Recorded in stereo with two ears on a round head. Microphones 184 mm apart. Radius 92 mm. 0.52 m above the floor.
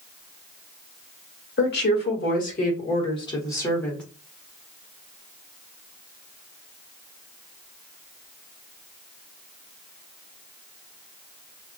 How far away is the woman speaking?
About 1.4 m.